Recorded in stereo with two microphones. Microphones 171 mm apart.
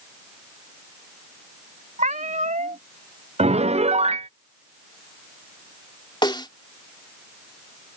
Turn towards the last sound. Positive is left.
turn(degrees=25)  # may be behind; listen again after turning